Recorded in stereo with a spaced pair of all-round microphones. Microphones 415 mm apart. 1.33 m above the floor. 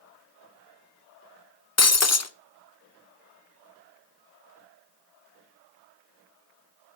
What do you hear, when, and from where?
1.8 s breaking glass: 40° left (ahead or behind), 0.6 m